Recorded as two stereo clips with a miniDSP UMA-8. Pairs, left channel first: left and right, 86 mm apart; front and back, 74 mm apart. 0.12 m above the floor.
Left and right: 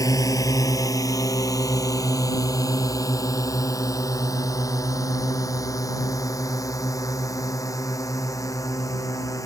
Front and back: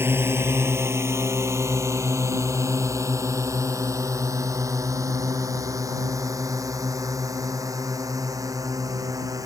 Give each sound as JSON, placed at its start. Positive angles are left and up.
{"t": 0.0, "sound": "a drone", "azimuth_deg": 125}